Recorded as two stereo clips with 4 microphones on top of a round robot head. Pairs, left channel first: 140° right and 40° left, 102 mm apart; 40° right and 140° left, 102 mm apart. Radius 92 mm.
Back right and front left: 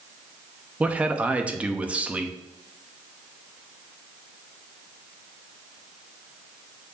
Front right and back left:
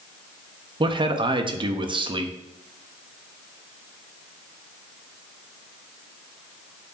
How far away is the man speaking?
About 1.0 m.